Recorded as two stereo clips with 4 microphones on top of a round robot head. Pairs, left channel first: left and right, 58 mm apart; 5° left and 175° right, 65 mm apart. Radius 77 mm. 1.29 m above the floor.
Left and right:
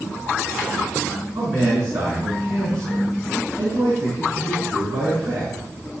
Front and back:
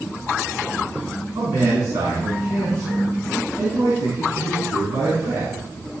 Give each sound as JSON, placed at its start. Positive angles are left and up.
{"t": 1.4, "sound": "a man speaking", "azimuth_deg": -130, "distance_m": 5.5}